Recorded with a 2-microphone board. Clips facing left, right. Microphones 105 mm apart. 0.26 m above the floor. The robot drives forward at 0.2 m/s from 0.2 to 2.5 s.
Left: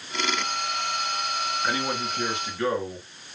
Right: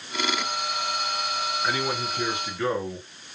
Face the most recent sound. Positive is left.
turn(degrees=-5)  # may be behind; listen again after turning